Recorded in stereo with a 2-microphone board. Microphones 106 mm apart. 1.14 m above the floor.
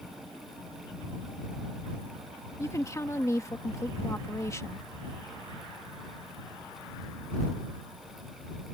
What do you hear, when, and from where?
2.6 s a woman speaking: 30° left (ahead or behind)